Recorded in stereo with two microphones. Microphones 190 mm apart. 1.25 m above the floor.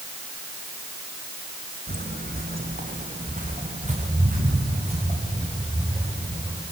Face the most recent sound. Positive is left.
turn(degrees=-25)  # may be behind; listen again after turning